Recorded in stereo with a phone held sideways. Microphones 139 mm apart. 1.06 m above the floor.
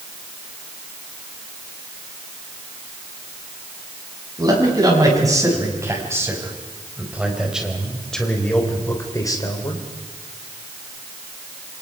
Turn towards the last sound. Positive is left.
turn(degrees=35)  # may be behind; listen again after turning